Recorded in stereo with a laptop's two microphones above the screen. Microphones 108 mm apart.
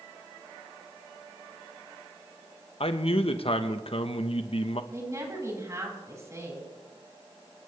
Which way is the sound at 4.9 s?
35° right (ahead or behind).